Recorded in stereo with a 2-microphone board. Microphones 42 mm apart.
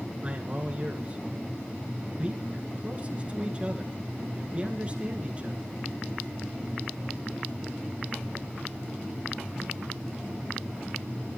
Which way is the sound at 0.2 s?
30° right (ahead or behind).